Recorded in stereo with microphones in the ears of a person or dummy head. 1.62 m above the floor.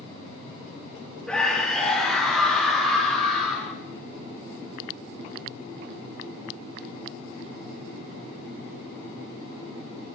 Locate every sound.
1.3 s a scream: 10° left (ahead or behind), 2.5 m